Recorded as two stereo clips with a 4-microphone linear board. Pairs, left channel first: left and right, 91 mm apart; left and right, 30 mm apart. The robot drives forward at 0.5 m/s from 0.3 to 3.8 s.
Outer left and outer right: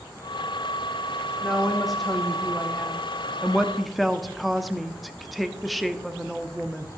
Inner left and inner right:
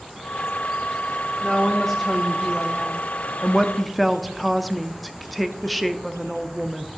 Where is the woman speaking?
Centre (ahead or behind), 1.2 m.